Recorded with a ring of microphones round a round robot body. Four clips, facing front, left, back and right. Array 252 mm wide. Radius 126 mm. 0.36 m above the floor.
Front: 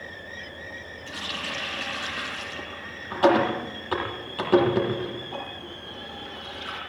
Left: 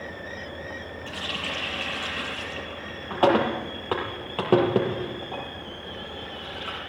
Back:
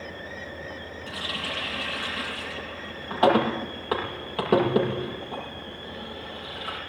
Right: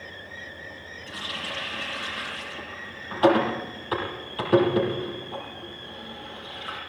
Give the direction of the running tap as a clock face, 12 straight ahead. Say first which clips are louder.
Left 1 dB, even; 8 o'clock.